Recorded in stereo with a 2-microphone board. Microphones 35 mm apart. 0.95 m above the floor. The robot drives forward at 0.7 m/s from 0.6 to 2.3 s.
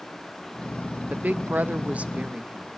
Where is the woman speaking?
50° right (ahead or behind), 0.6 m; by 2.7 s 35° right (ahead or behind), 0.8 m.